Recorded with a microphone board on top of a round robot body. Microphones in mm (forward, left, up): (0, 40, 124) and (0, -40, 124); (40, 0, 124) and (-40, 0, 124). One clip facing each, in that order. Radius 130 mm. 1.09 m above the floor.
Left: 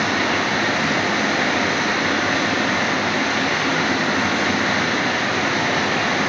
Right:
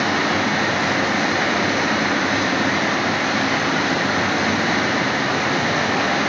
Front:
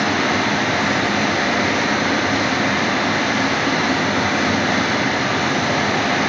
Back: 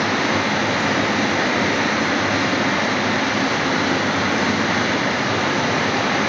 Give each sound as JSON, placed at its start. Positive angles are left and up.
{"t": 0.0, "sound": "running water", "azimuth_deg": -170, "distance_m": 1.4}